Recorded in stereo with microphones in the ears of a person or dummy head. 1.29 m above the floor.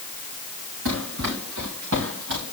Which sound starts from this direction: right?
Running footsteps, at 0.8 s.